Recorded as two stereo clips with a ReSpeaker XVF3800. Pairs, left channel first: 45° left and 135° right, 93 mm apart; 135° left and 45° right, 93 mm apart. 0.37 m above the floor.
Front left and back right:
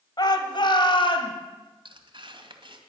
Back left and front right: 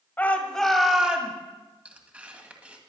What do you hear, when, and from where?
0.2 s a shout: 70° left, 2 m; by 1.3 s 30° left, 3 m
1.9 s tearing paper: 120° right, 2.0 m